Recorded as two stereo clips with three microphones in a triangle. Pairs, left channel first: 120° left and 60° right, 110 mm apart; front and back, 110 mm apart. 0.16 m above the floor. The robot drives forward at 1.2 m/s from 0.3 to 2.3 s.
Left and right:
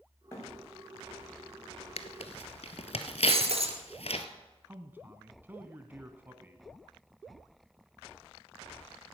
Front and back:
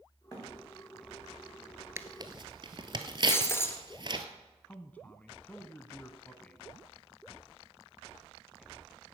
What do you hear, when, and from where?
0.3 s a thud: 60° left, 5.5 m
2.0 s tearing paper: 115° left, 0.9 m; by 4.2 s 135° left, 1.2 m
3.3 s breaking glass: 65° right, 1.5 m
4.7 s a man speaking: 40° right, 1.0 m